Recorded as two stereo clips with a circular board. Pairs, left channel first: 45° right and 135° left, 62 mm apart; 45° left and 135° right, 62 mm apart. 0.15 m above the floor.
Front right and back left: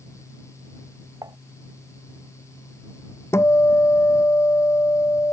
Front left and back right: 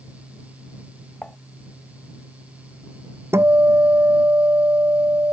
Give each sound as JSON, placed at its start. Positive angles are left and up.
{"t": 1.2, "sound": "dishes clattering", "azimuth_deg": 120}
{"t": 3.3, "sound": "a guitar", "azimuth_deg": -90}